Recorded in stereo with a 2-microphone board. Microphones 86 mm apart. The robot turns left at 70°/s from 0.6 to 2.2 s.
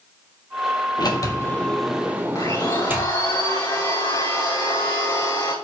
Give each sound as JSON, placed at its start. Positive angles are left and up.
{"t": 1.0, "sound": "a sliding door", "azimuth_deg": 60, "distance_m": 1.8}
{"t": 2.4, "sound": "a blender", "side_deg": 50, "distance_m": 6.0}